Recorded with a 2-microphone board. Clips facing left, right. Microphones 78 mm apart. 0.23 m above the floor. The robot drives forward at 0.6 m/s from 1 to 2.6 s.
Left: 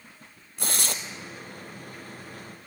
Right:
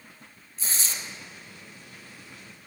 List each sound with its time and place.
0.6 s tearing paper: 65° left (ahead or behind), 1.3 m